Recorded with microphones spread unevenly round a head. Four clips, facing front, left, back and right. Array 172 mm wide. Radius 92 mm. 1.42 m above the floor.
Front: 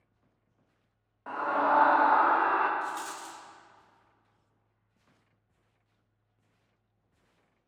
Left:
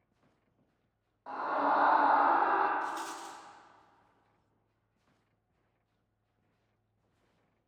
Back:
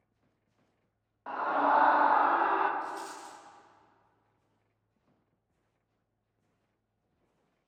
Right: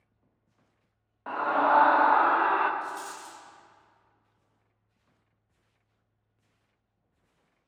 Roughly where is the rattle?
Ahead.